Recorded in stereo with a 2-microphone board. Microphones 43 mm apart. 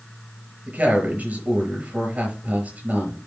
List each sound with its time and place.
0.7 s a woman speaking: 35° right (ahead or behind), 6 m